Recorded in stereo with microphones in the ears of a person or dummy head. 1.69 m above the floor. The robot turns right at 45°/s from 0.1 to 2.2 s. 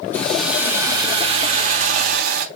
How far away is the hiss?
About 1.7 m.